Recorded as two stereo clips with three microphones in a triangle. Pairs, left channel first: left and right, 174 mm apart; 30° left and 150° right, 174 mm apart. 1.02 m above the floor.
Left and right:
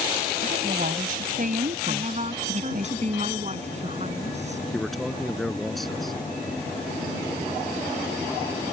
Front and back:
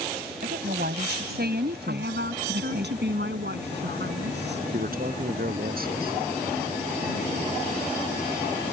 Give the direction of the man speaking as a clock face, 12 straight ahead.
6 o'clock.